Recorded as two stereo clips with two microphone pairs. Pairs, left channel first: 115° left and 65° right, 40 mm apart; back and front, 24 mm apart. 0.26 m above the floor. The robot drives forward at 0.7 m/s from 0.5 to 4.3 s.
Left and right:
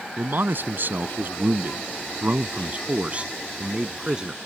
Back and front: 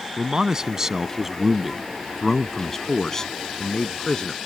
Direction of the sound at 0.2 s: 60° right.